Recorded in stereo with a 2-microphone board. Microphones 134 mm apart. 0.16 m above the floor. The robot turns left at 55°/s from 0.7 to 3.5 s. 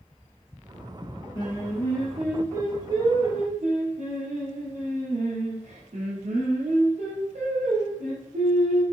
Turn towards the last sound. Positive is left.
turn(degrees=-75)